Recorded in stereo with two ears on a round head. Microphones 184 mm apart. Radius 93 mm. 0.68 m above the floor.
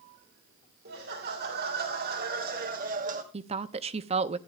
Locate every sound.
0.8 s laughter: 50° right (ahead or behind), 2.5 m; by 3.2 s 35° right (ahead or behind), 1.2 m
3.3 s a woman speaking: 30° right (ahead or behind), 0.7 m